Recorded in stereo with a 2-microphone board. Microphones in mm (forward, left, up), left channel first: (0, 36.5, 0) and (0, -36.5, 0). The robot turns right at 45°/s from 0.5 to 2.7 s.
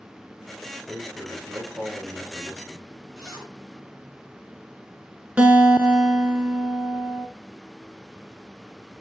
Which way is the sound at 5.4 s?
20° right (ahead or behind).